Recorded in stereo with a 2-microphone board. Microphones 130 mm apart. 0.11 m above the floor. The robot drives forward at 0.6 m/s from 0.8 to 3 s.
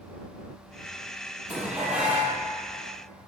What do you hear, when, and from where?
1.5 s dishes clattering: 10° right (ahead or behind), 3 m